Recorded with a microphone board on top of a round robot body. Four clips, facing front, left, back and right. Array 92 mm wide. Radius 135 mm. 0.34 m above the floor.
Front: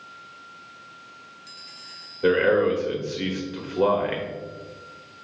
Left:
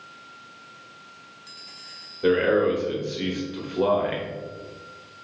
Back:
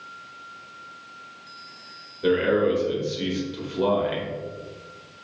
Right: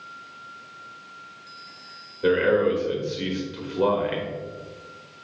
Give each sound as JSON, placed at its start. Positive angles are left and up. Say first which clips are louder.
{"t": 2.2, "sound": "a man speaking", "louder": "even, front 1 dB", "azimuth_deg": -5, "distance_m": 1.3}